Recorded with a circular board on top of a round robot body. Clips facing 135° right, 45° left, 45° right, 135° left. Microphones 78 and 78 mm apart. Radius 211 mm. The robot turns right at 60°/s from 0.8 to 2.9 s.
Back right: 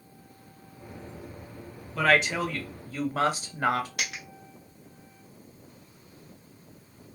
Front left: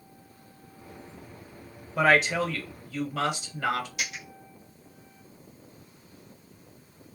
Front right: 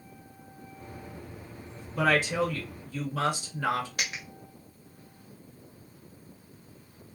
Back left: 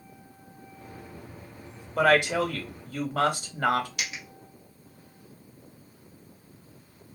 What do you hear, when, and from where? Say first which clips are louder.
1.9 s a woman speaking: front left 1 dB, back left 4 dB; 115° left, 1.3 m; by 3.9 s 175° left, 1.3 m
4.0 s a dropped coin: back right 1 dB, front right 1 dB; 100° right, 0.5 m